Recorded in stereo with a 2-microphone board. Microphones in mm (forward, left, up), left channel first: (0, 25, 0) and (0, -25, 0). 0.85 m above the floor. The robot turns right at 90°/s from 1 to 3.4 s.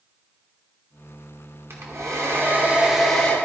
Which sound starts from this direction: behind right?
A hair dryer, at 1.7 s.